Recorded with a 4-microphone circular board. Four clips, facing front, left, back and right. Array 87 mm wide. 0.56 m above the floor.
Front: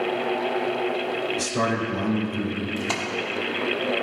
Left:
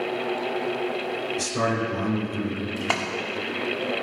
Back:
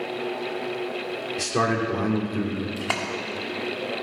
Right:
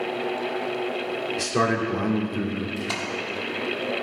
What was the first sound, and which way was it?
A man speaking, 135° right.